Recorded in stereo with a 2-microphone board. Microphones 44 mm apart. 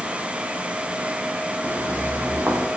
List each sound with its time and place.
1.6 s footsteps: 60° right (ahead or behind), 8 m; by 2.7 s 70° right (ahead or behind), 7.5 m